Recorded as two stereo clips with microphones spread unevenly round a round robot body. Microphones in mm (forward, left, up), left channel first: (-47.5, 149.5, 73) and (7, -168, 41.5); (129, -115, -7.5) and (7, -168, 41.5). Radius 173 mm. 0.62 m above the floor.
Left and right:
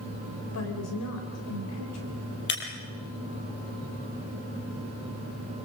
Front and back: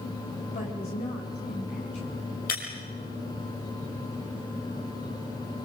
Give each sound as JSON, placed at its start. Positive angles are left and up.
{"t": 0.5, "sound": "a woman speaking", "azimuth_deg": 55, "distance_m": 3.5}
{"t": 2.5, "sound": "breaking glass", "azimuth_deg": 40, "distance_m": 5.0}